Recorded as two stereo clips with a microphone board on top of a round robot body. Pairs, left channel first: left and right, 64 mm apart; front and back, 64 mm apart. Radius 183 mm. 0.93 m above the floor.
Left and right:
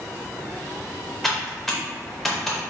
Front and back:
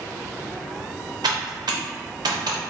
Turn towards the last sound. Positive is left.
turn(degrees=180)